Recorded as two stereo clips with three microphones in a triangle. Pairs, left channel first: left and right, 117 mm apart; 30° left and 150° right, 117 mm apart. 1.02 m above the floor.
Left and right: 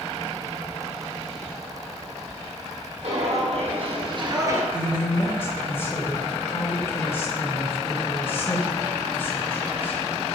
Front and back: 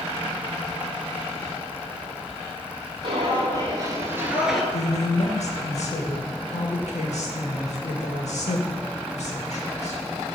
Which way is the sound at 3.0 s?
110° right.